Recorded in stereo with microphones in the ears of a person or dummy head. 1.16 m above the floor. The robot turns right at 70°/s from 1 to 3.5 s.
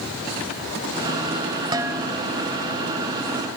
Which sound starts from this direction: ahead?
Dishes clattering, at 1.7 s.